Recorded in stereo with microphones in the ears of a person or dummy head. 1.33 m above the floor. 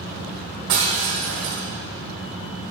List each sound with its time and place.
0.7 s breaking glass: 55° right (ahead or behind), 1.6 m